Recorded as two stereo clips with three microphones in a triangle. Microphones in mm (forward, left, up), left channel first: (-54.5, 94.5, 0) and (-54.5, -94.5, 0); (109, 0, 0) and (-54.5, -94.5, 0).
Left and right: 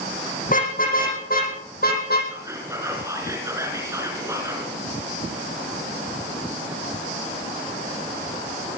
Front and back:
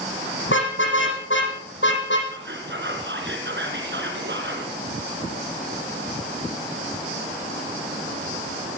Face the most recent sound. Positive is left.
turn(degrees=-165)